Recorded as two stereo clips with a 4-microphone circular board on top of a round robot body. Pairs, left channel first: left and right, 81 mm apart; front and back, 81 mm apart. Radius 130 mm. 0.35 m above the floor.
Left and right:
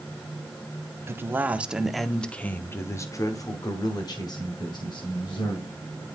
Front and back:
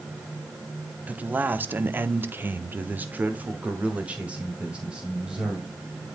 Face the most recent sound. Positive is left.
turn(degrees=100)